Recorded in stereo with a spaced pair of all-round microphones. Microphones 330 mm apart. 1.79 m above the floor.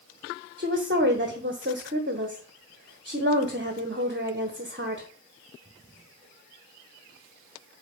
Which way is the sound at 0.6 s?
35° right (ahead or behind).